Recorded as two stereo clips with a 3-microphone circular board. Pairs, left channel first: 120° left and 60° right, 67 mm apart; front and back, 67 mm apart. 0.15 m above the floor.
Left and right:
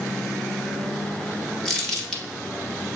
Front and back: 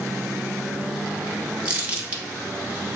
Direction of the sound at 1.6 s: 165° right.